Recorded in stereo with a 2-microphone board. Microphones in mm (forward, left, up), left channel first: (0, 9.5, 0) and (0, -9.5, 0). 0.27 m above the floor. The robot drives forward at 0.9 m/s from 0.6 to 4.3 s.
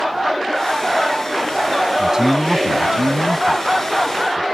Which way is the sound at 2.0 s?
45° right (ahead or behind).